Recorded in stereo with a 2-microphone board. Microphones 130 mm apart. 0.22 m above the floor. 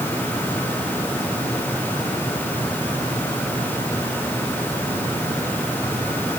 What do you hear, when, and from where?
Only background noise.